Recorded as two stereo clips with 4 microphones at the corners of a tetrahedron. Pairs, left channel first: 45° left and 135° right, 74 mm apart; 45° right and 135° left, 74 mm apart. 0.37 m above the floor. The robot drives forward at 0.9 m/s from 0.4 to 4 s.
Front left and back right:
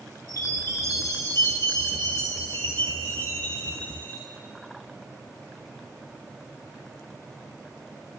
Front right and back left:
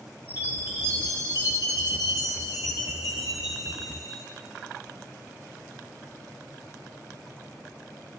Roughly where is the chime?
Left.